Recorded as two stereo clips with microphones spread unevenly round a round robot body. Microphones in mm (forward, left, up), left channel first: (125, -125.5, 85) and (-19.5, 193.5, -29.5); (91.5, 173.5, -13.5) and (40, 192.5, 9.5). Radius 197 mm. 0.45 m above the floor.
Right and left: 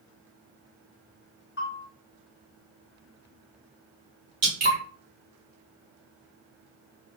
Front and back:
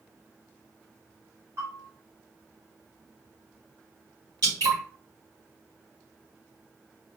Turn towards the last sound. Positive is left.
turn(degrees=180)